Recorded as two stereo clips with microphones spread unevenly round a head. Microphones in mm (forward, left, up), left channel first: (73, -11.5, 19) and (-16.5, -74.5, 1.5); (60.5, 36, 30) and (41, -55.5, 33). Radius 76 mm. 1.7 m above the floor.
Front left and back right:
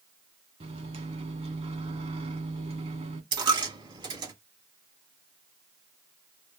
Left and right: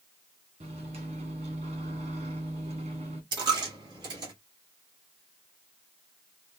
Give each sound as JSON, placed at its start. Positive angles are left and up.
{"t": 0.6, "sound": "a microwave", "azimuth_deg": -115, "distance_m": 1.2}
{"t": 3.3, "sound": "a dropped coin", "azimuth_deg": -115, "distance_m": 1.4}